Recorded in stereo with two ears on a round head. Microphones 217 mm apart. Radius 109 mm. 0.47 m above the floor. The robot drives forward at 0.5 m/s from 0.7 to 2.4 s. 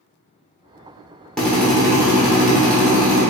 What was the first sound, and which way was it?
A drill, 5° left (ahead or behind).